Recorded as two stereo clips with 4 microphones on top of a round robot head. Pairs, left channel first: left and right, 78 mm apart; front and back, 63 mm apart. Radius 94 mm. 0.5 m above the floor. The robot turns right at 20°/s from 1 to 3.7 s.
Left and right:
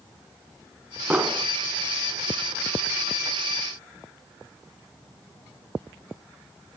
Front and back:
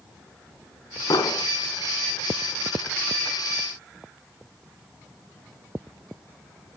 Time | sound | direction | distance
1.1 | an explosion | 15° right | 0.8 m